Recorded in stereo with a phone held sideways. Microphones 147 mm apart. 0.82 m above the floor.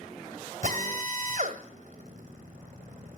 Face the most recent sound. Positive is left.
turn(degrees=-60)  # may be behind; listen again after turning